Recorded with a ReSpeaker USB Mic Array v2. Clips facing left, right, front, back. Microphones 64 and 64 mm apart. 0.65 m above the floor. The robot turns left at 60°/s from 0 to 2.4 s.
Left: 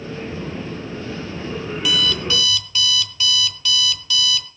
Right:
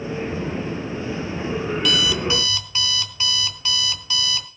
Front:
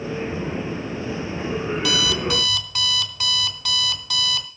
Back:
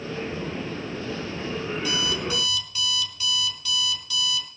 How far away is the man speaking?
I don't hear a man speaking.